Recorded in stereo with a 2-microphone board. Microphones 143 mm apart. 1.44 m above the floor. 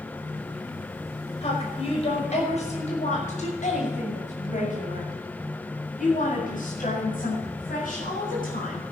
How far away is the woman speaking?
About 5.5 m.